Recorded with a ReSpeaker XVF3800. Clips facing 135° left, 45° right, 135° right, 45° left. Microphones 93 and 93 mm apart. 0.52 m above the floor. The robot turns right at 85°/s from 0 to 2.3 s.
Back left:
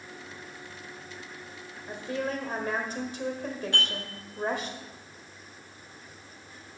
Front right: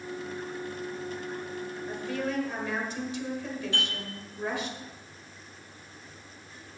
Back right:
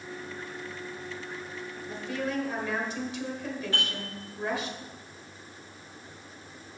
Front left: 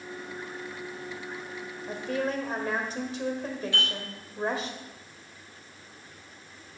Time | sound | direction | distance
1.9 | a woman speaking | 55° left | 1.6 m
3.7 | dishes clattering | 175° left | 5 m